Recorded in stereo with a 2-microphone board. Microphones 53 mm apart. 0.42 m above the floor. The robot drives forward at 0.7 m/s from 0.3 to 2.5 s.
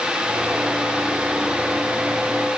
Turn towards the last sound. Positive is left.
No sound to turn to.